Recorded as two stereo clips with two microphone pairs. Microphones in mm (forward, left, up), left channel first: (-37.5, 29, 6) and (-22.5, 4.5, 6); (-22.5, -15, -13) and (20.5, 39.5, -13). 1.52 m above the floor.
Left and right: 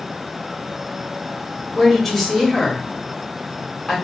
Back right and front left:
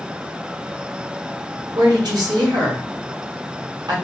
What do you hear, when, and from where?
1.8 s a woman speaking: 45° left, 1.1 m